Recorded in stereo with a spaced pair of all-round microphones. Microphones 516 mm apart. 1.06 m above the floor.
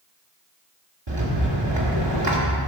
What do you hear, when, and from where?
1.1 s a rattle: 55° right (ahead or behind), 2 m